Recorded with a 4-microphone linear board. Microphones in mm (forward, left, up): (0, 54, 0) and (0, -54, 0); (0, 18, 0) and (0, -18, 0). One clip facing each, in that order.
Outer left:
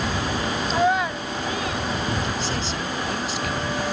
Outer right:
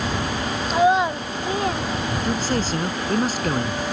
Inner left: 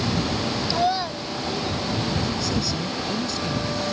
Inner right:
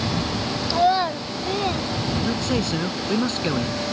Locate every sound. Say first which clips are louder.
0.7 s a child speaking: outer right 4 dB, inner right 6 dB; 5° right (ahead or behind); by 1.9 s 40° right (ahead or behind)
2.2 s a man speaking: outer right 4 dB, inner right 2 dB; 50° right (ahead or behind)